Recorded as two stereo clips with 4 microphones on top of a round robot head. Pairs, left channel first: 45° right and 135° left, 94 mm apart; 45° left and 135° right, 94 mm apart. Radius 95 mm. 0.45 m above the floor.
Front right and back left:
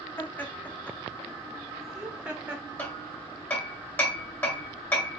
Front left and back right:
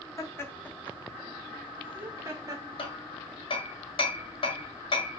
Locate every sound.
0.2 s laughter: 5° left, 1.6 m; by 2.6 s 165° right, 1.7 m
2.8 s hammering: 20° left, 2.5 m